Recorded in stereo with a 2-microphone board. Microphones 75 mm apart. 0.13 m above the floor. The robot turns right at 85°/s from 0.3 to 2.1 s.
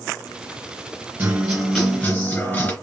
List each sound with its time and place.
1.2 s a guitar: 35° right, 2 m; by 2.7 s 45° left, 2 m